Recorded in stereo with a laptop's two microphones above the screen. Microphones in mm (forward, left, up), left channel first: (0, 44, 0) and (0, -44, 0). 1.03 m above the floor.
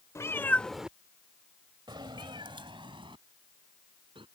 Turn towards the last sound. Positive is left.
turn(degrees=-80)